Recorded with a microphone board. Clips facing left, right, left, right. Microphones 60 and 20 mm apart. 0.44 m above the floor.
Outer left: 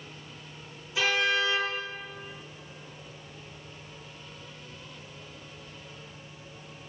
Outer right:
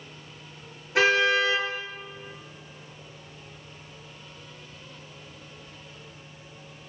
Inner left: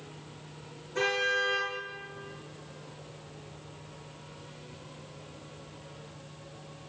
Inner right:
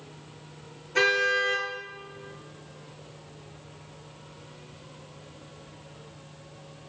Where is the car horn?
60° right (ahead or behind), 3.5 m.